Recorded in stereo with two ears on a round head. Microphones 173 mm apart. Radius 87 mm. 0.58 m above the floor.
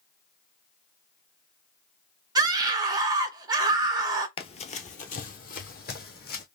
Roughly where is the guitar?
No guitar in this recording.